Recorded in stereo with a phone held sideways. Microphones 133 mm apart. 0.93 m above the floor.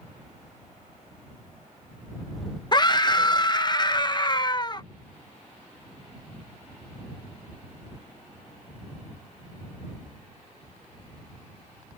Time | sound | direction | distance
2.7 | a scream | 30° left (ahead or behind) | ?